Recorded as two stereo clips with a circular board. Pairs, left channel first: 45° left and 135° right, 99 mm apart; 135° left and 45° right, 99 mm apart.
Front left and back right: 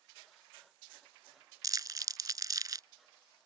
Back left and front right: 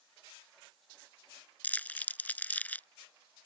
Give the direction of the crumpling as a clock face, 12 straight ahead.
5 o'clock.